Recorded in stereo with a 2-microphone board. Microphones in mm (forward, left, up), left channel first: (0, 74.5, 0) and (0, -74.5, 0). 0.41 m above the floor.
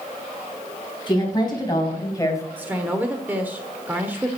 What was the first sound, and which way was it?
A woman speaking, 30° left (ahead or behind).